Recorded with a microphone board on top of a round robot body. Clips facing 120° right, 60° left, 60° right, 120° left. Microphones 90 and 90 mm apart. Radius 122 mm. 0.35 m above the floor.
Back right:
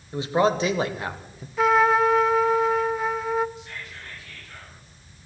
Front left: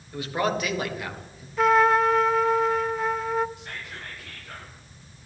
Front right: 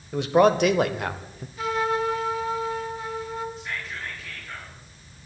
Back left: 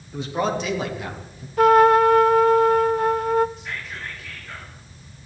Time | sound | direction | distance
0.1 | a man speaking | 55° right | 2.0 m
1.6 | a trumpet | 150° left | 0.6 m
3.6 | whispering | 30° left | 9 m